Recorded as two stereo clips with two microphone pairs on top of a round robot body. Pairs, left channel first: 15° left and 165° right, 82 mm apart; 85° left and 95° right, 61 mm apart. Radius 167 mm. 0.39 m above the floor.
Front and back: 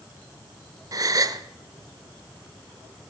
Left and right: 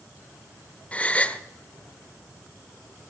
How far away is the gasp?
About 1.1 m.